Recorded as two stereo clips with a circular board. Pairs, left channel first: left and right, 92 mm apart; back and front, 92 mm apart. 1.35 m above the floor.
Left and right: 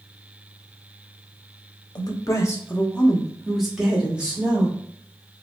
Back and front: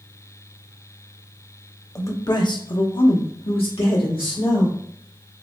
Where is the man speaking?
125° left, 0.8 m; by 4.8 s 160° right, 1.8 m.